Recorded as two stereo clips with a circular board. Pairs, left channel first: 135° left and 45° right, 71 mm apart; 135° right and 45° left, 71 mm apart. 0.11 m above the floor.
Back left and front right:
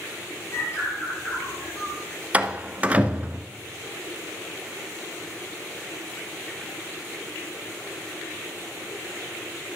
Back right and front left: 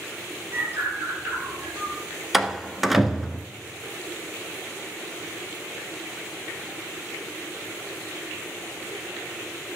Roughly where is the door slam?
Ahead right.